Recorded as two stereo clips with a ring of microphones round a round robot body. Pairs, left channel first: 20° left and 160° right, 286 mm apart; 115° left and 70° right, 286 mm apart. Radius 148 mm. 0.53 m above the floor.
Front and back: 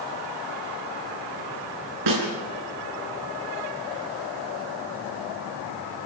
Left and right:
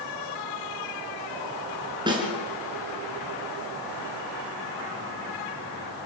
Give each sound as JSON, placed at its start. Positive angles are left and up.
{"t": 2.1, "sound": "a snare drum", "azimuth_deg": -140, "distance_m": 4.5}